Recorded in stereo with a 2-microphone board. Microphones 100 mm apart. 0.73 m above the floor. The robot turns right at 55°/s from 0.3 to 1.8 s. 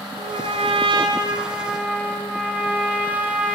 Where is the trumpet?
100° right, 4.5 m; by 3.6 s 15° right, 4.5 m.